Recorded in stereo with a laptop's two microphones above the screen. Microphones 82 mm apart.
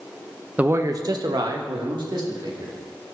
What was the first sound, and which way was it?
A man speaking, 20° right (ahead or behind).